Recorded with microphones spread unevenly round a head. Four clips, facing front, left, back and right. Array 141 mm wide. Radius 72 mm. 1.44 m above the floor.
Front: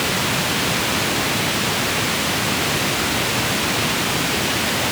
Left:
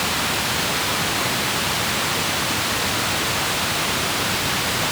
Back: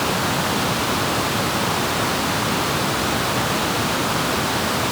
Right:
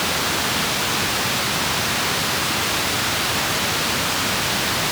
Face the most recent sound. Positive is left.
No sound to turn to.